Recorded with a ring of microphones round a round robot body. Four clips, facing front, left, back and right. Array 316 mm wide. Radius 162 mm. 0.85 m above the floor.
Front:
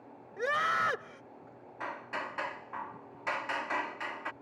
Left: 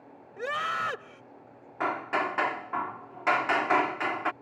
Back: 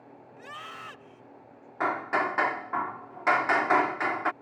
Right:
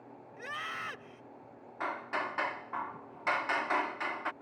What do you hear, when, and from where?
0.4 s a scream: 40° left
1.8 s hammering: 145° left